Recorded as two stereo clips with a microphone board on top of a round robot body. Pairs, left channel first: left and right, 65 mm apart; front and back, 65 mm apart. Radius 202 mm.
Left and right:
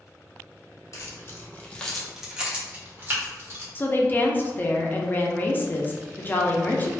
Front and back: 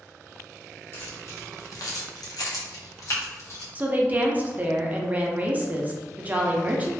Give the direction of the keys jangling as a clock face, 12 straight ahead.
10 o'clock.